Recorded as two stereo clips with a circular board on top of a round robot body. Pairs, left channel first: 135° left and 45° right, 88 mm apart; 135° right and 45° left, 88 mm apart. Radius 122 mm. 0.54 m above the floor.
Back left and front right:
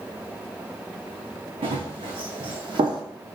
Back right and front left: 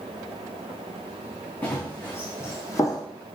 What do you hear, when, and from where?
1.6 s running footsteps: 65° right, 3 m; by 3.0 s 85° right, 1.7 m